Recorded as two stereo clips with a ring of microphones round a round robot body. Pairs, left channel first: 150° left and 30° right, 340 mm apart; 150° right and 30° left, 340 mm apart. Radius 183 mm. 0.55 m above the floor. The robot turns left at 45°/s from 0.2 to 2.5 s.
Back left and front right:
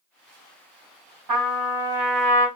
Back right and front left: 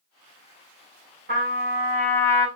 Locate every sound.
1.3 s a trumpet: 25° right, 2 m; by 2.5 s 75° right, 2 m